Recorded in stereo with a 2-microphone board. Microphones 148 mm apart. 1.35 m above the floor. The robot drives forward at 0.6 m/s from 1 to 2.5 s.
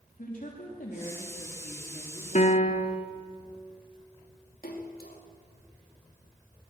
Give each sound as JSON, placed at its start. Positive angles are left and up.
{"t": 0.2, "sound": "a woman speaking", "side_deg": 70, "distance_m": 3.0}
{"t": 2.4, "sound": "a piano", "side_deg": 55, "distance_m": 1.3}
{"t": 4.6, "sound": "a splash", "side_deg": 90, "distance_m": 2.5}